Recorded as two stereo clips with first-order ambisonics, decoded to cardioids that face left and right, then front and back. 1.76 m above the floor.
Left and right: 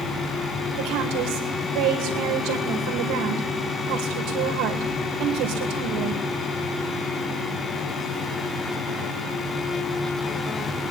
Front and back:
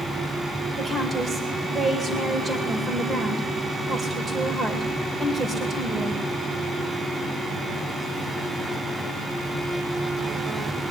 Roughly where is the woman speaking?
Right.